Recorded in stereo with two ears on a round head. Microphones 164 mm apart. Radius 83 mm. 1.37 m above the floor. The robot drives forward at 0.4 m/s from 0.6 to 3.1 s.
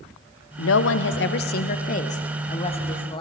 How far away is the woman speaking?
About 0.5 m.